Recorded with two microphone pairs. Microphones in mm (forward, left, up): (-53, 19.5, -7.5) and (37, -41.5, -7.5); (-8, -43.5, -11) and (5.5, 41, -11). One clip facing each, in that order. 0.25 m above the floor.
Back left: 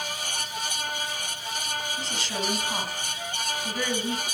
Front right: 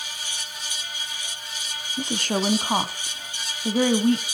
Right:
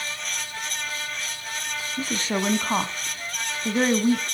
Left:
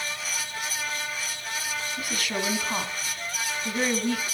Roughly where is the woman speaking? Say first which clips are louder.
Front right 6 dB, right 7 dB; ahead right.